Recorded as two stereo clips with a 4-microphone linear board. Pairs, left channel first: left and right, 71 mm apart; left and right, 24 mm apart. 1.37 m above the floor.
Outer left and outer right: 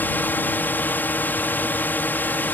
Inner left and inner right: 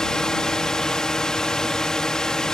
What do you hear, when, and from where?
0.0 s a drone: 25° left (ahead or behind)